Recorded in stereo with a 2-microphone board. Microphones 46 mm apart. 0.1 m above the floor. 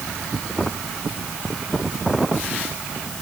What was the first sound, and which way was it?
Only background noise.